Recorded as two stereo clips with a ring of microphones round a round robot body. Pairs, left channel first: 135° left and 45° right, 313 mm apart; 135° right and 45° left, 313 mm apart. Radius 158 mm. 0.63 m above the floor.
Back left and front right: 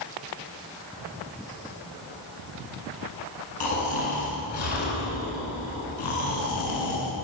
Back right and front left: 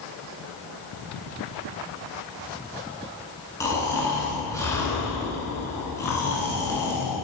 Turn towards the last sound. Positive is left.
turn(degrees=145)